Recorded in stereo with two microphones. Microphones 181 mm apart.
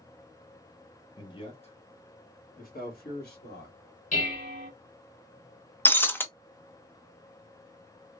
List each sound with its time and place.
1.2 s a man speaking: 20° left (ahead or behind), 0.9 m; by 3.8 s 65° left (ahead or behind), 2.0 m
4.1 s dishes clattering: 45° left (ahead or behind), 1.9 m
5.8 s breaking glass: 10° left (ahead or behind), 0.5 m